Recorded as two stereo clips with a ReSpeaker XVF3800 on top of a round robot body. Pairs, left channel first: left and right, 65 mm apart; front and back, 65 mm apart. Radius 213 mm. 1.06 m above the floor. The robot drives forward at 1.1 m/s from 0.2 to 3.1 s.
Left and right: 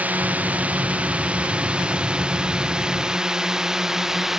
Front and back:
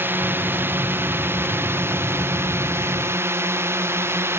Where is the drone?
145° right; by 4.4 s 170° right.